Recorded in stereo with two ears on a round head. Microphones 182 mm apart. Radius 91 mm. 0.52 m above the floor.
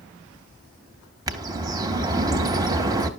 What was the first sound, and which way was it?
A bird, 15° right (ahead or behind).